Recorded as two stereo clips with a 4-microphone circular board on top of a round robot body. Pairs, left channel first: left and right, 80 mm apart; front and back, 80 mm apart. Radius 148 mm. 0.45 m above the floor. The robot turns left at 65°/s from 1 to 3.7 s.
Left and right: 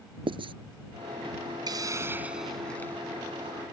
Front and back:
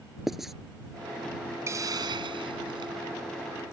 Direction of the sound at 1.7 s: 125° right.